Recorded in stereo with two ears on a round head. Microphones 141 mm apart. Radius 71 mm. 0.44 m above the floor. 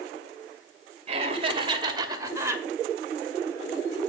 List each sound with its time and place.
1.1 s laughter: 40° right (ahead or behind), 2 m; by 2.6 s 15° right (ahead or behind), 2 m